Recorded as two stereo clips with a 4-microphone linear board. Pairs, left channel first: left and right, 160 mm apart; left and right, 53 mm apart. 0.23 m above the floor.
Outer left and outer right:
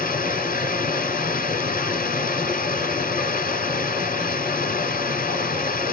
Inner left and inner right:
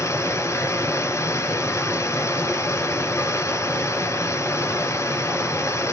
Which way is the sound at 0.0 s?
60° left (ahead or behind).